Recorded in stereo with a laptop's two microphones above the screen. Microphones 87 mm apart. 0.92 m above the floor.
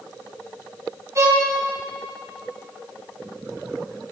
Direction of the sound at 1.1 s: 35° right (ahead or behind).